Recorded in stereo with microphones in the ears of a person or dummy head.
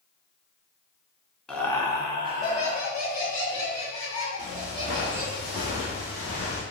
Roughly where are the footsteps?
Left.